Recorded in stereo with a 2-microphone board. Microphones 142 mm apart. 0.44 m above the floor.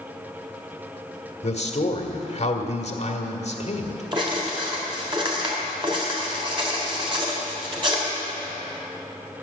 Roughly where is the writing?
Right.